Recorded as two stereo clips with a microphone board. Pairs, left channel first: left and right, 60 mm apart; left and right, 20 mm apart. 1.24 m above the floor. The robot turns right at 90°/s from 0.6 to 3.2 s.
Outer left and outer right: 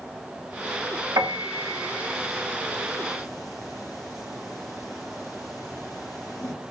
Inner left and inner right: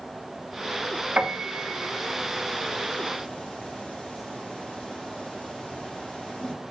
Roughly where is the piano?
Right.